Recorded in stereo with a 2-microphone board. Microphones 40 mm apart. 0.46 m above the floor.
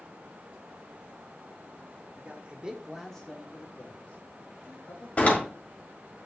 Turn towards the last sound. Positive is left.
turn(degrees=35)  # may be behind; listen again after turning